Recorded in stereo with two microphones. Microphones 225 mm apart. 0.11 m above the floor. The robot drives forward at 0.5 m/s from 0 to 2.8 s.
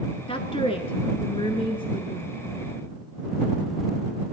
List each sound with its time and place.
0.3 s a woman speaking: 25° left (ahead or behind), 1.1 m; by 2.3 s 20° left (ahead or behind), 1.3 m